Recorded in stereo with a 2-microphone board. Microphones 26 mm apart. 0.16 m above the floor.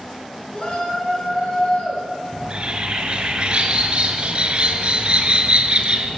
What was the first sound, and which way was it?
A shout, 35° left (ahead or behind).